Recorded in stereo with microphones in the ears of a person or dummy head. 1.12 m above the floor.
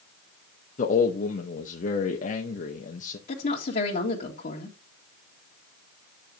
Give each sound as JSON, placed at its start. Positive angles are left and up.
{"t": 0.8, "sound": "a man speaking", "side_deg": 45, "distance_m": 0.9}
{"t": 3.3, "sound": "a woman speaking", "side_deg": 45, "distance_m": 1.8}